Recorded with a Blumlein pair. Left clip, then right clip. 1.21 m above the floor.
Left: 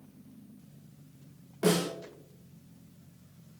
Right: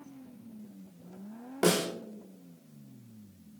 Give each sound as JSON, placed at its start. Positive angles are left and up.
{"t": 1.6, "sound": "a snare drum", "azimuth_deg": -65, "distance_m": 2.5}